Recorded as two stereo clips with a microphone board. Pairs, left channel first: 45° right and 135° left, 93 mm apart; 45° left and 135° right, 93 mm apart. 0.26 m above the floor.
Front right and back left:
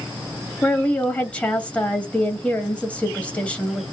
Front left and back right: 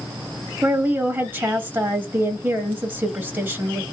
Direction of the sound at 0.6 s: 100° right.